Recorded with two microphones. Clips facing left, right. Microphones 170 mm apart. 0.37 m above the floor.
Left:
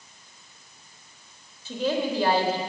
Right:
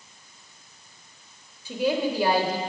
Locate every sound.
1.6 s a woman speaking: 10° right (ahead or behind), 0.9 m